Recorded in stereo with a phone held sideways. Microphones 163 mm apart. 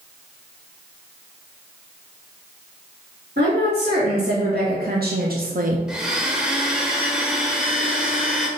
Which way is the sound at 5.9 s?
5° right (ahead or behind).